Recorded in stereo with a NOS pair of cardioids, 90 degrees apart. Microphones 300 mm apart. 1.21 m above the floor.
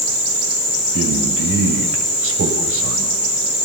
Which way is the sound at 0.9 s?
45° right.